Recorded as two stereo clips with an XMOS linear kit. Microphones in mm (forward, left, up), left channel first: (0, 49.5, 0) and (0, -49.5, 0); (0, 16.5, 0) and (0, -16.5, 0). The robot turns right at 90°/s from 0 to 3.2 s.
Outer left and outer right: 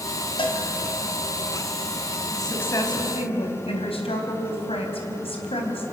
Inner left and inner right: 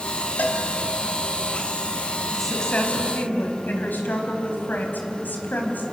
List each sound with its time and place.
0.4 s a cowbell: 60° left (ahead or behind), 2 m; by 0.6 s 80° left, 2 m
2.3 s a woman speaking: 5° right, 4 m; by 5.8 s 75° left, 4 m